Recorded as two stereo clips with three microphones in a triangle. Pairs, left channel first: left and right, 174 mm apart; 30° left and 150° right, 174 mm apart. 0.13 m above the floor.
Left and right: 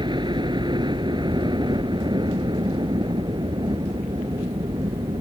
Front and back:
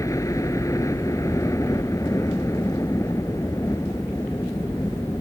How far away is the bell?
No bell in this recording.